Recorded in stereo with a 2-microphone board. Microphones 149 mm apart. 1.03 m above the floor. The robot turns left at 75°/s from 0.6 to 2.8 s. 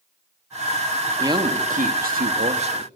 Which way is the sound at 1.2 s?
25° right.